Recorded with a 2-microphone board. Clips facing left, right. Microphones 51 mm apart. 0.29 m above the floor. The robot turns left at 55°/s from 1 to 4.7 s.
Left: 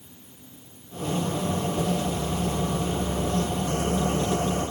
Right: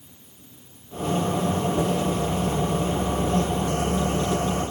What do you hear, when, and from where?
Only background noise.